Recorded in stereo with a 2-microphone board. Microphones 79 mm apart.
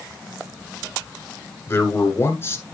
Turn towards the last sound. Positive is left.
turn(degrees=30)  # may be behind; listen again after turning